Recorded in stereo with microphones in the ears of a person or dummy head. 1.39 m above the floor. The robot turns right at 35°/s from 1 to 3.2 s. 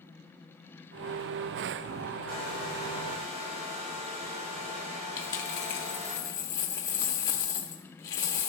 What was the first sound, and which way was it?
A hair dryer, 70° right.